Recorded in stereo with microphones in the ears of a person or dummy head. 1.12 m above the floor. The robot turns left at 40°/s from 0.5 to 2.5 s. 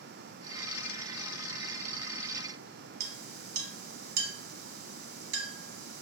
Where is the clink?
60° right (ahead or behind), 0.8 m.